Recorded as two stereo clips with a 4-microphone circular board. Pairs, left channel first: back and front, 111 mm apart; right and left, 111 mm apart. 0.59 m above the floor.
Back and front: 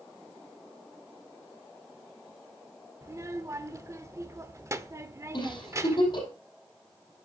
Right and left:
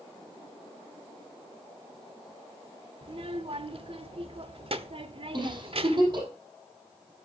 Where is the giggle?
135° left, 5.5 m.